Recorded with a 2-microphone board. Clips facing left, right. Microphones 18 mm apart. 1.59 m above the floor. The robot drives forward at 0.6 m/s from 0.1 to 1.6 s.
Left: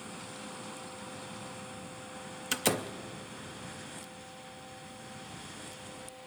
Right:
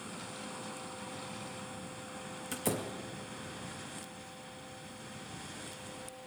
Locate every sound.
2.5 s a door slam: 50° left (ahead or behind), 0.5 m